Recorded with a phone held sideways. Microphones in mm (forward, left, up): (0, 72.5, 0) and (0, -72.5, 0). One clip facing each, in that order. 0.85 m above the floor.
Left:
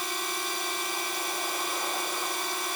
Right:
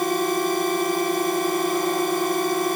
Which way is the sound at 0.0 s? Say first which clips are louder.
Right 14 dB; 50° right (ahead or behind).